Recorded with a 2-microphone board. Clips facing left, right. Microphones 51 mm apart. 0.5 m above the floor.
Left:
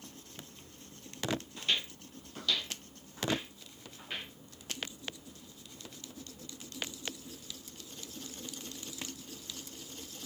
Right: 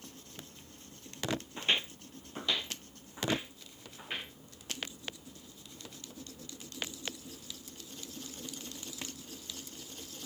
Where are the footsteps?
30° right (ahead or behind), 0.5 m; by 4.3 s 20° right (ahead or behind), 2 m.